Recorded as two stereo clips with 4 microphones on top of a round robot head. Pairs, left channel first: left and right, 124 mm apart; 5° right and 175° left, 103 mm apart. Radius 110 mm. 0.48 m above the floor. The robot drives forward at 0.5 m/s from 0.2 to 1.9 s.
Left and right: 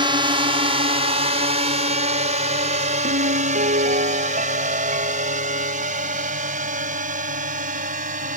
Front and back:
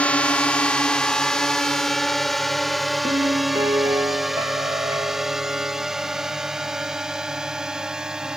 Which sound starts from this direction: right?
A drone, at 0.0 s.